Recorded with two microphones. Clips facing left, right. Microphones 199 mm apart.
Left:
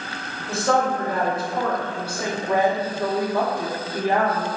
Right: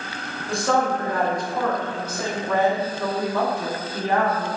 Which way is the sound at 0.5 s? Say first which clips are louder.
Left 1 dB; centre (ahead or behind).